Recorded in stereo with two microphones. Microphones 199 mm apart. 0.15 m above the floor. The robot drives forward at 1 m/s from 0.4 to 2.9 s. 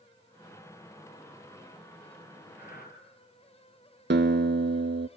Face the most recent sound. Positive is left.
turn(degrees=-65)  # may be behind; listen again after turning